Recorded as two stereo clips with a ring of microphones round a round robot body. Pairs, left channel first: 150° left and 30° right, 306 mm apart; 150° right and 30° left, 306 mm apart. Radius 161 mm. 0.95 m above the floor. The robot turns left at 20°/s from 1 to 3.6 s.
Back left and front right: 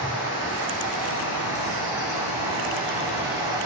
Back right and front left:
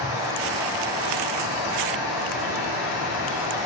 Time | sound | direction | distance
0.0 | running water | 25° left | 8.5 m